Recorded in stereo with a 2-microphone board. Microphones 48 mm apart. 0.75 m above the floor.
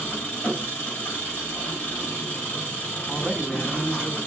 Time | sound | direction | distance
0.0 | an engine running | 35° left (ahead or behind) | 4 m
3.1 | a man speaking | 5° right (ahead or behind) | 2 m